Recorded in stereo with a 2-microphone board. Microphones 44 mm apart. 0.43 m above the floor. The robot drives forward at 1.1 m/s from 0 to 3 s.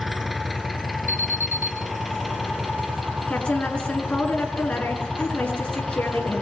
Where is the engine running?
Centre (ahead or behind), 3 m.